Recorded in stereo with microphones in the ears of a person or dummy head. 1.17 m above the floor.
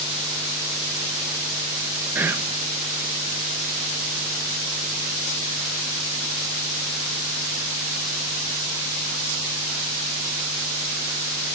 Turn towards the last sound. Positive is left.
turn(degrees=-10)  # may be behind; listen again after turning